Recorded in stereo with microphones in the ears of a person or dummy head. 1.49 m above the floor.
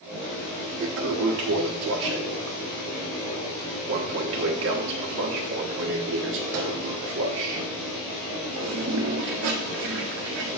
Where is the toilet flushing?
50° right (ahead or behind), 1.2 m.